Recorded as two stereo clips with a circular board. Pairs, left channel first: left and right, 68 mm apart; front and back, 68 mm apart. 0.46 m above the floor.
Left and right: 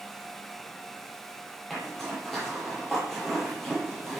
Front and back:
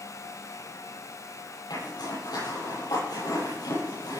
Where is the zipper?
5° left, 10 m.